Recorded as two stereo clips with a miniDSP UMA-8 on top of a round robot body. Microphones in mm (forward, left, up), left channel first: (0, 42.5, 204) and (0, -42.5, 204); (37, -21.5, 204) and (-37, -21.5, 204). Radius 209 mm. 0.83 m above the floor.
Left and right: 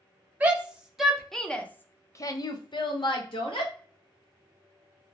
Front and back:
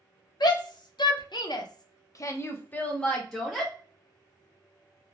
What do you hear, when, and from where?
0.4 s a shout: 15° right, 1.2 m; by 3.7 s 90° left, 1.1 m